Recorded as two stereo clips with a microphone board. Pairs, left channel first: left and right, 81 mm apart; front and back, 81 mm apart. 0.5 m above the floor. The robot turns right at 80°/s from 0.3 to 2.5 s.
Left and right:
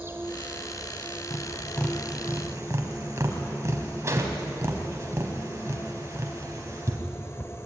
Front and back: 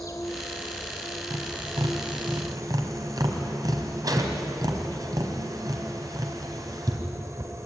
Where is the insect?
35° right, 2.5 m; by 7.7 s 140° left, 2.5 m.